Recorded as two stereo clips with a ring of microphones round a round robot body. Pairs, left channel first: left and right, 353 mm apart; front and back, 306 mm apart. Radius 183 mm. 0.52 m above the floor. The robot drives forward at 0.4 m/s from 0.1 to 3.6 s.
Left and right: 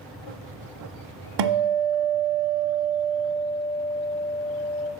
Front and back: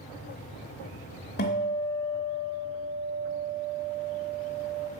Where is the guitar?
65° right, 0.7 m; by 4.9 s 130° right, 0.9 m.